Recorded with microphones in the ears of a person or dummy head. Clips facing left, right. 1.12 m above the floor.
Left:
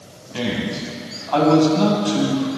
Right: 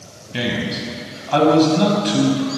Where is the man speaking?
30° right (ahead or behind), 6 m.